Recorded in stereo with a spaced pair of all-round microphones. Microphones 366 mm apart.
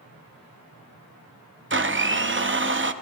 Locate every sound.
1.7 s a blender: 35° right (ahead or behind), 0.5 m